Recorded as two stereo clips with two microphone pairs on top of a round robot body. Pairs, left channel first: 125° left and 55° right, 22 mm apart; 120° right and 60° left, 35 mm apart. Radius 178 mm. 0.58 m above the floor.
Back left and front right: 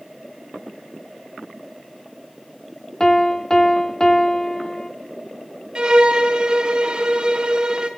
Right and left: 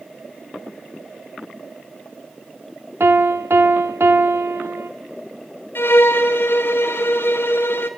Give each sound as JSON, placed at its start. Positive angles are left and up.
{"t": 3.0, "sound": "a piano", "azimuth_deg": 60, "distance_m": 1.2}
{"t": 5.8, "sound": "a violin", "azimuth_deg": -105, "distance_m": 0.8}